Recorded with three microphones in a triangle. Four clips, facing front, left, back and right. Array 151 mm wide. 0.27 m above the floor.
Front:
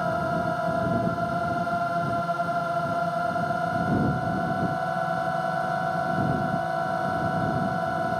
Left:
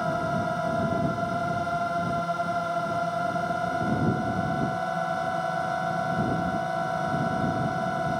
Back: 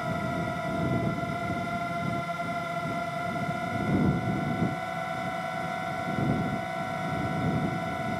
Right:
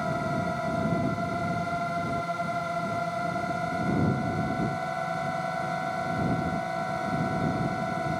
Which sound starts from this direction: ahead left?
A drone, at 0.0 s.